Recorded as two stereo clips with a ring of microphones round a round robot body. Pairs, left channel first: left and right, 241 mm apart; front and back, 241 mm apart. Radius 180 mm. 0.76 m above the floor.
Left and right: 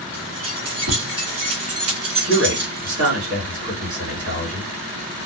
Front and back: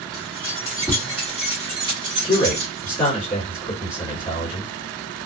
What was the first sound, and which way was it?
Keys jangling, 75° right.